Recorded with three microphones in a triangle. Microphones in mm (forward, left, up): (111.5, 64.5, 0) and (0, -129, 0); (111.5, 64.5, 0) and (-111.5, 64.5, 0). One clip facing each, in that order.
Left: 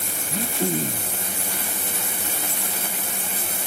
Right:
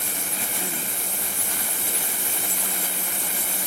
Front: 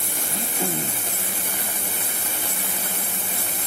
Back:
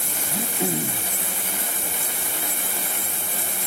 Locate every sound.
0.3 s throat clearing: 105° left